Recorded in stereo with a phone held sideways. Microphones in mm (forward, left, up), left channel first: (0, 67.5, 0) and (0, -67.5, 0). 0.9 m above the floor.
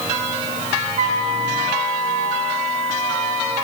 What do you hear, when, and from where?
1.0 s a flute: 60° right (ahead or behind), 4 m